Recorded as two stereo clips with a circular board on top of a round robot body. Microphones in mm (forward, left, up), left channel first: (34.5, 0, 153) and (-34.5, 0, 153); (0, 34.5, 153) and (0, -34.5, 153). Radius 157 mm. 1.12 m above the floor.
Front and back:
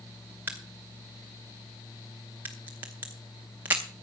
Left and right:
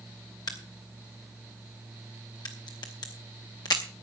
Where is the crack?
115° left, 0.6 m.